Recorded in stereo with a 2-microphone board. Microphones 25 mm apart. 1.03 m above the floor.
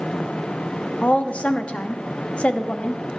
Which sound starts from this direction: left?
A woman speaking, at 1.0 s.